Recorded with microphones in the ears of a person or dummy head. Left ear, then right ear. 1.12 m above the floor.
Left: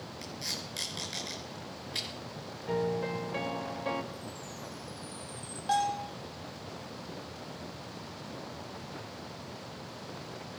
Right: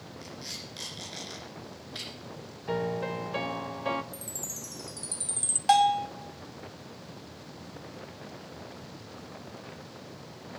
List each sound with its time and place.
0.2 s tape being pulled: 25° left (ahead or behind), 4.5 m
2.7 s a piano: 15° right (ahead or behind), 0.7 m
4.1 s a chime: 80° right, 0.7 m
5.7 s a bell: 25° right (ahead or behind), 1.0 m